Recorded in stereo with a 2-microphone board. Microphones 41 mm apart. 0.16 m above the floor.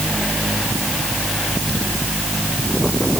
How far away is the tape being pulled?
No tape being pulled in this recording.